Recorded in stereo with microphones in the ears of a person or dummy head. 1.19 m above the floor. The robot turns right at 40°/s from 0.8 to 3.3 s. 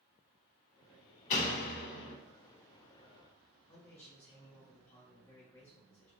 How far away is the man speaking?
About 1.9 m.